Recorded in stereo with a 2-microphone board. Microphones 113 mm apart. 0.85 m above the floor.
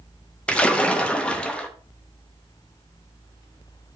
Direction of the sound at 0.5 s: 10° left (ahead or behind).